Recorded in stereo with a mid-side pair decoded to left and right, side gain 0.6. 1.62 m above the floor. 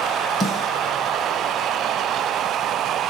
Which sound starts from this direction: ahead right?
A snare drum, at 0.4 s.